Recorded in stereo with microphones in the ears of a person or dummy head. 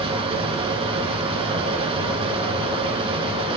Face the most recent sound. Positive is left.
turn(degrees=-30)  # may be behind; listen again after turning